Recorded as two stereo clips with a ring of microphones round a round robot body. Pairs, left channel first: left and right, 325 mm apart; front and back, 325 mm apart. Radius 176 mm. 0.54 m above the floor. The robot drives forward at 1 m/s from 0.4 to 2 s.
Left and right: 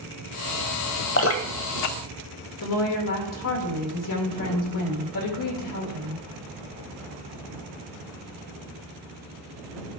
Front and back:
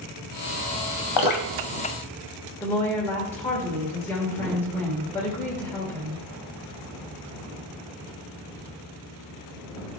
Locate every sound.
1.2 s dripping: 35° left, 0.9 m; by 3.3 s 105° left, 0.5 m
2.6 s a woman speaking: 85° left, 1.6 m